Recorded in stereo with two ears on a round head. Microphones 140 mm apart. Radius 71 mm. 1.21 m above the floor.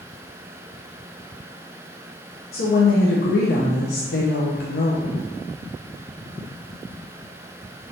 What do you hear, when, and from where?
2.5 s a woman speaking: 65° left (ahead or behind), 0.5 m